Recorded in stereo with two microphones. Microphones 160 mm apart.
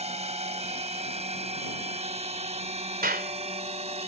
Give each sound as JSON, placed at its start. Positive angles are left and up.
{"t": 0.0, "sound": "a drone", "side_deg": -40}
{"t": 3.0, "sound": "a clap", "side_deg": -75}